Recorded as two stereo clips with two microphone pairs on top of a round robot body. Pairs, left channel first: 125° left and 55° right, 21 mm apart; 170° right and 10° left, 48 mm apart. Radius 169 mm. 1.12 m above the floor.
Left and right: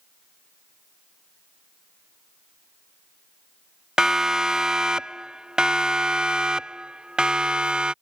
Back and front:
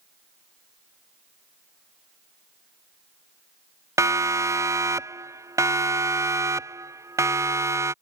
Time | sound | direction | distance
4.0 | a siren | 5° left | ?